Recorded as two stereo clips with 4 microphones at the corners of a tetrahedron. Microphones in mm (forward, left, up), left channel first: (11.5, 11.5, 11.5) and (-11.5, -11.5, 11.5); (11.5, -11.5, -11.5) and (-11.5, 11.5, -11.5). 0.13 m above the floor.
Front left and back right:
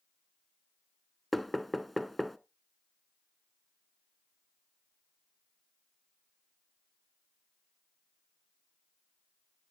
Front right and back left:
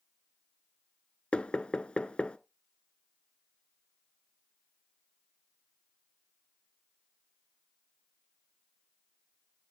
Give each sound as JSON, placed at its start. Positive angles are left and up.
{"t": 1.3, "sound": "knocking", "azimuth_deg": -35, "distance_m": 0.9}